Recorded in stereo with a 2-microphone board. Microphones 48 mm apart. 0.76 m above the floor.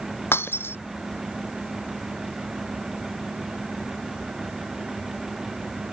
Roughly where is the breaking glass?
Left.